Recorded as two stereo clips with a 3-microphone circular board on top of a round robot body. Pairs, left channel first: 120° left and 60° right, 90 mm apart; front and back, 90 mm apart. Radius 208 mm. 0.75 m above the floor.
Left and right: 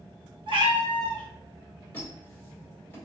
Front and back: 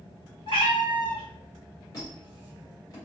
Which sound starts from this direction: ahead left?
A squeak, at 1.9 s.